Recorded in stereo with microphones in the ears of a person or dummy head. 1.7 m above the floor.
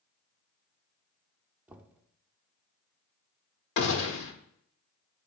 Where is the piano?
No piano in this recording.